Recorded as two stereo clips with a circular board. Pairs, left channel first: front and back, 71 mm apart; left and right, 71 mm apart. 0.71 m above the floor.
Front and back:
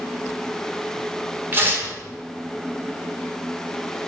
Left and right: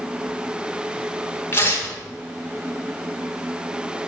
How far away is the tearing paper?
About 1.5 m.